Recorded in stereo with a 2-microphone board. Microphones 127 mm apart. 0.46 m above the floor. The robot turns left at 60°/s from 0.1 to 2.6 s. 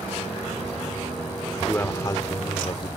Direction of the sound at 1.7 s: 155° left.